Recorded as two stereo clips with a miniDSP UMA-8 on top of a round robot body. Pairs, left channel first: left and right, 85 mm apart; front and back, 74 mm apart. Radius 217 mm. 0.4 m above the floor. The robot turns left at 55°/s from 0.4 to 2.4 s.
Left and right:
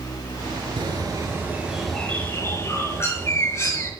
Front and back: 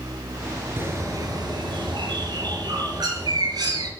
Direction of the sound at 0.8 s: 120° right.